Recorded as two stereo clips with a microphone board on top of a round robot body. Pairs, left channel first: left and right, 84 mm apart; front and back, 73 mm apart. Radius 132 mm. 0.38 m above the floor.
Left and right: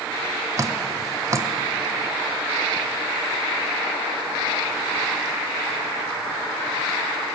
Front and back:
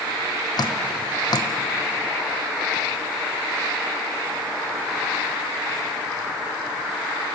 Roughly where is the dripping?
Ahead right.